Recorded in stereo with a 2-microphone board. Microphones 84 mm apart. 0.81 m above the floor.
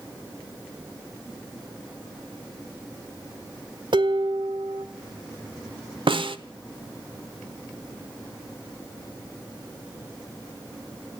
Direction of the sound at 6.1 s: 80° right.